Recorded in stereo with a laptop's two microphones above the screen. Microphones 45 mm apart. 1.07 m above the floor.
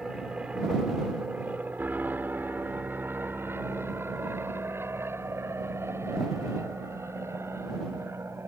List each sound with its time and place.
0.0 s an aircraft: 20° right (ahead or behind); by 8.5 s 80° right